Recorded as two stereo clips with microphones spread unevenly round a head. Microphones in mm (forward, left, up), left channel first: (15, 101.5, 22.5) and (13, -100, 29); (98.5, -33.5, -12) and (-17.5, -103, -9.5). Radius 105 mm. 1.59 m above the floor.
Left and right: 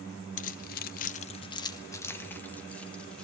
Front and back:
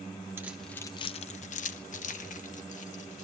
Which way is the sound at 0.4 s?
140° left.